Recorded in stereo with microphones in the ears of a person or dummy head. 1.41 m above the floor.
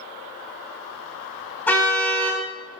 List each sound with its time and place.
1.7 s a car horn: 10° left (ahead or behind), 6 m